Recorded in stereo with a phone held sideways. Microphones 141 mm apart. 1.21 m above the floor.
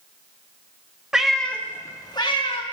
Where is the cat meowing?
5° right (ahead or behind), 0.9 m; by 2.6 s 45° left (ahead or behind), 1.2 m.